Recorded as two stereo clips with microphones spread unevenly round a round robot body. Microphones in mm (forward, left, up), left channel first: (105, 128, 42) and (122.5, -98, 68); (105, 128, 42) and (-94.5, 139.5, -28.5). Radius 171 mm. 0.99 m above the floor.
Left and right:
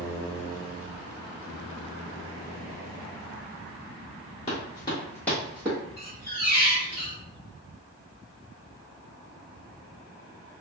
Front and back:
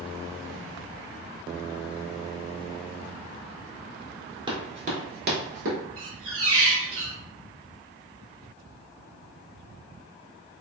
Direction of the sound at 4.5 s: 95° left.